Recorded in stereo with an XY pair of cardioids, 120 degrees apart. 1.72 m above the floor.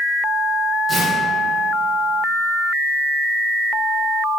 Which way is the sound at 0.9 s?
30° right.